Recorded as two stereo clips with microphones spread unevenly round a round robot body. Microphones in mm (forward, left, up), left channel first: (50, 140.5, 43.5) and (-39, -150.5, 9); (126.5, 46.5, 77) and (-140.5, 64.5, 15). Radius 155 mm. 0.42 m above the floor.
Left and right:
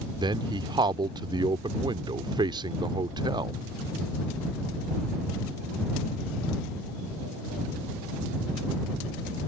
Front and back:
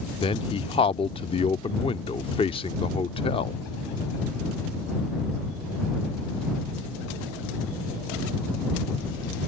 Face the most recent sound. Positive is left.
turn(degrees=-75)